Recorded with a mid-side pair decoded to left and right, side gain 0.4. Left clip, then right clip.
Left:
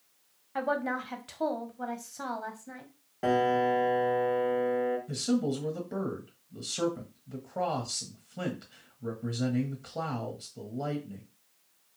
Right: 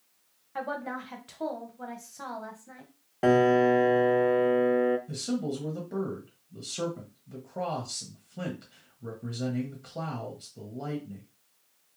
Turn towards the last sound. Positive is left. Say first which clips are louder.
# left 2 dB
turn(degrees=10)